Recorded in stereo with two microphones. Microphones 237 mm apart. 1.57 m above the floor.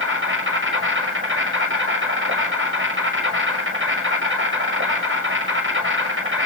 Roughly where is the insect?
Right.